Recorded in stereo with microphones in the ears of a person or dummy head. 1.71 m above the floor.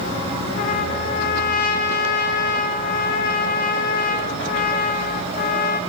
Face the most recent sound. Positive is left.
turn(degrees=50)  # may be behind; listen again after turning